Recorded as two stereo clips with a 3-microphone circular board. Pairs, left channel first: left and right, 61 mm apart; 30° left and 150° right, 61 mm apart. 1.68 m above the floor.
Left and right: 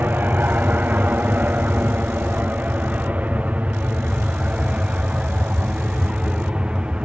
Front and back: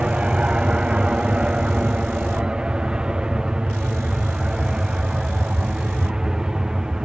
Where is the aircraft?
90° right; by 7.0 s 100° right.